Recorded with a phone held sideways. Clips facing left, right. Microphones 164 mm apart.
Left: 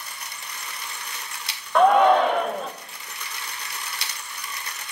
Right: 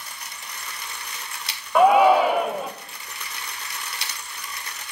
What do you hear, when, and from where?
1.8 s a shout: 5° right (ahead or behind), 0.6 m